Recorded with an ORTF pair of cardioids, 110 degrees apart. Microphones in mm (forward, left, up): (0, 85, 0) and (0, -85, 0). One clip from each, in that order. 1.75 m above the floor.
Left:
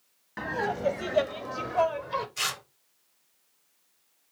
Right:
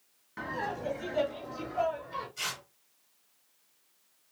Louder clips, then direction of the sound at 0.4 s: Left 5 dB; 30° left.